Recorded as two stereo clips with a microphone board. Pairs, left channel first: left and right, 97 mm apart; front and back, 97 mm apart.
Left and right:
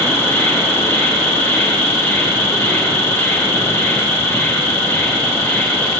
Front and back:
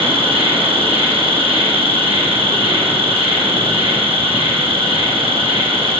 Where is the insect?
155° left, 1.0 m.